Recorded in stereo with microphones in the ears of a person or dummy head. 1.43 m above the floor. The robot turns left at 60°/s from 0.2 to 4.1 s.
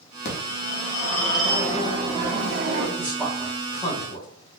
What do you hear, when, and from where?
0.2 s a phone ringing: 65° left, 1.1 m; by 2.9 s 90° right, 1.1 m
3.0 s a man speaking: 10° right (ahead or behind), 1.0 m; by 4.3 s 55° left (ahead or behind), 1.0 m